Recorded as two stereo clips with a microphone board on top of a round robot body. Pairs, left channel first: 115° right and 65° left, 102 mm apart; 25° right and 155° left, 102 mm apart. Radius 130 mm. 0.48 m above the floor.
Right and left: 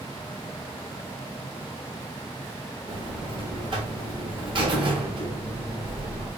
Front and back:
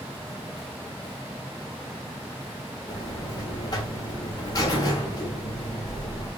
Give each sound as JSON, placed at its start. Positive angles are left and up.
{"t": 2.9, "sound": "a buzzer", "azimuth_deg": 30, "distance_m": 0.8}